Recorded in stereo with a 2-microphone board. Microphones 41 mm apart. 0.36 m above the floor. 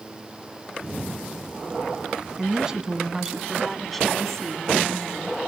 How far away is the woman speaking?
About 3.5 m.